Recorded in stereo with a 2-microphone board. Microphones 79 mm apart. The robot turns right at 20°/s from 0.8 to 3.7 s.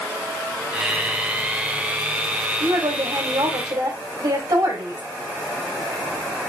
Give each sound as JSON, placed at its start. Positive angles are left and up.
{"t": 2.6, "sound": "a woman speaking", "side_deg": -75, "distance_m": 3.5}